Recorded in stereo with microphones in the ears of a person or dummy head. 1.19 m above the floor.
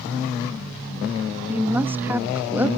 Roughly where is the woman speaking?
Centre.